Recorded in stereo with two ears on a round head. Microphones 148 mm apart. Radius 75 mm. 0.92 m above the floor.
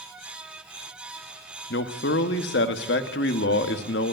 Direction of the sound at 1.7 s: 75° left (ahead or behind).